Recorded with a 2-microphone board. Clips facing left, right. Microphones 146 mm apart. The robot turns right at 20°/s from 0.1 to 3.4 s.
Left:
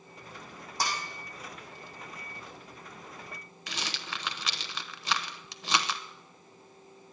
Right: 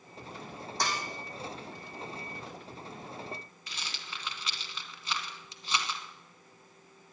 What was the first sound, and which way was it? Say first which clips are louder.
A snare drum: even; 5° left (ahead or behind).